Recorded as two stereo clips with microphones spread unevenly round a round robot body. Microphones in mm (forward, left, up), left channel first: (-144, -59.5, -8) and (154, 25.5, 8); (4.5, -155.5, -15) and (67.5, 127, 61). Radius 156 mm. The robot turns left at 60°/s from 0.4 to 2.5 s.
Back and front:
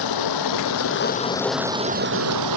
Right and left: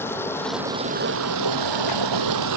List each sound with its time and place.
0.0 s running water: 175° left; by 2.6 s 50° left